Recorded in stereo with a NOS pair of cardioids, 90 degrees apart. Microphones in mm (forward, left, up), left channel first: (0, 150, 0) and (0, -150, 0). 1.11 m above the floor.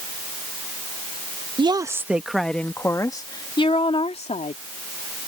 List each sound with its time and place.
1.6 s a woman speaking: 20° right; by 4.6 s 25° left